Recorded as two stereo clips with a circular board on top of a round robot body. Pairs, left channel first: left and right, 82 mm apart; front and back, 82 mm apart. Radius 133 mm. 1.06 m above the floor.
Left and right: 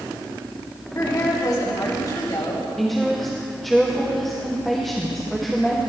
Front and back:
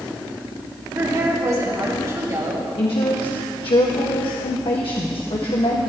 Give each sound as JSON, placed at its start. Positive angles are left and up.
{"t": 0.9, "sound": "a woman speaking", "azimuth_deg": 130, "distance_m": 4.5}
{"t": 2.8, "sound": "a woman speaking", "azimuth_deg": 0, "distance_m": 2.0}